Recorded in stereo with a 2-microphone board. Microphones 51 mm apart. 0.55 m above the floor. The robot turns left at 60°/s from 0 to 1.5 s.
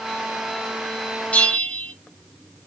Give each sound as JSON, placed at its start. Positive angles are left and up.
{"t": 1.3, "sound": "a bell", "side_deg": 30, "distance_m": 0.6}